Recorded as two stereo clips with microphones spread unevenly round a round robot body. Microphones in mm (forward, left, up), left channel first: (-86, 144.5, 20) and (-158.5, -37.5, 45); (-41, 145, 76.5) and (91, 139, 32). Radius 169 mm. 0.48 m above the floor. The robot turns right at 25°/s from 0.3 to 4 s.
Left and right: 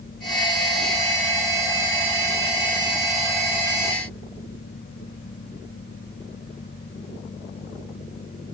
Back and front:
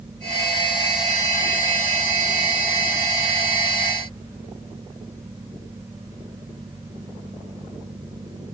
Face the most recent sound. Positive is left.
No sound to turn to.